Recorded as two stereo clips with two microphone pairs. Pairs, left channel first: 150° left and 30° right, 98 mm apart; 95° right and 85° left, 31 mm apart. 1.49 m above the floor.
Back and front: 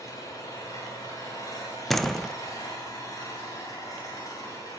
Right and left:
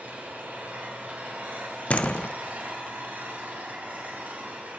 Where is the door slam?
125° right, 0.7 m.